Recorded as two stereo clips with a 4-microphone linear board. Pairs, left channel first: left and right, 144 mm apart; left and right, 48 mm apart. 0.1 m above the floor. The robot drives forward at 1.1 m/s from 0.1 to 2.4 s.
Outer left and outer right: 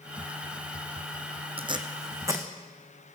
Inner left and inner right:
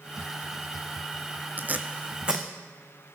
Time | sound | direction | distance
1.6 | tape being pulled | 40° right (ahead or behind) | 0.8 m